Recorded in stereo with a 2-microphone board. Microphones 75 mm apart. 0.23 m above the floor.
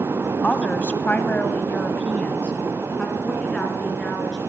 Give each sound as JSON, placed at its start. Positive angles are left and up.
{"t": 0.4, "sound": "a woman speaking", "side_deg": 20, "distance_m": 1.3}